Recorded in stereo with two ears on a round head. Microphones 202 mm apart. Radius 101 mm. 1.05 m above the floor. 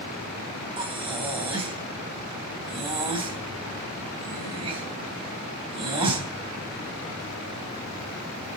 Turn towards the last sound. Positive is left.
turn(degrees=-25)  # may be behind; listen again after turning